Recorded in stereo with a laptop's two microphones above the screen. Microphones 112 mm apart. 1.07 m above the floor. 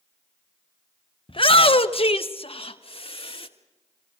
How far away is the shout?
About 0.9 m.